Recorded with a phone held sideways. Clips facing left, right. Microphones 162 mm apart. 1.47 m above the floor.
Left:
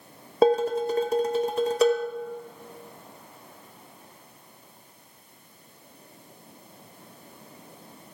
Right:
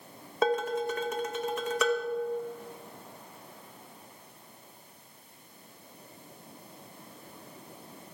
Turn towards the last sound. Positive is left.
turn(degrees=35)  # may be behind; listen again after turning